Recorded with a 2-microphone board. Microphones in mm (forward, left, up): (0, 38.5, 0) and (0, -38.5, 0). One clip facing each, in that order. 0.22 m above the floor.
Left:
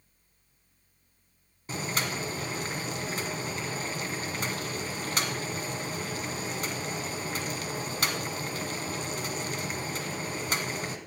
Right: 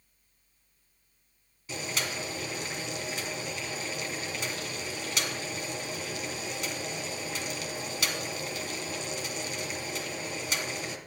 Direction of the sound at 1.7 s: 40° left (ahead or behind).